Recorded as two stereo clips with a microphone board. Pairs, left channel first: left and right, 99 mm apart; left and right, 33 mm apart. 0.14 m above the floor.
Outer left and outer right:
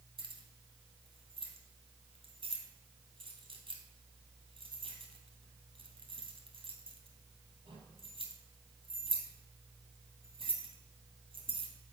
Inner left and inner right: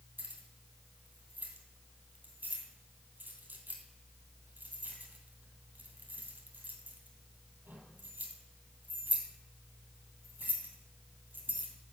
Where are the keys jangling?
65° right (ahead or behind), 2.5 m.